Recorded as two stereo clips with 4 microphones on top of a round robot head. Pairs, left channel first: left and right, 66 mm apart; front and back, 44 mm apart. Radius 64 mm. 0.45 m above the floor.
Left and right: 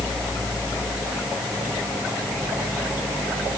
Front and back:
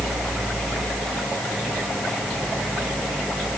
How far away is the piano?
No piano in this recording.